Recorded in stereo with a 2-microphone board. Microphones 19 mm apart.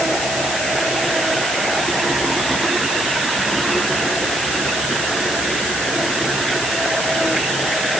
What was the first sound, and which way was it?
Only background noise.